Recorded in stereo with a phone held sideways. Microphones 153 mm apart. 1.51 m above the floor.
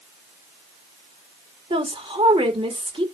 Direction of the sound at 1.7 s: 40° right (ahead or behind).